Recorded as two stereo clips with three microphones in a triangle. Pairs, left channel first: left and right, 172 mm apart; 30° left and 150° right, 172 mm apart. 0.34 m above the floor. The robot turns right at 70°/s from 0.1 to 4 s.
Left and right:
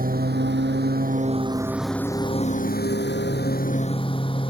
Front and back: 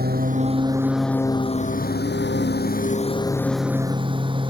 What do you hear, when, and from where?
0.0 s a lawn mower: 125° right; by 4.5 s 150° left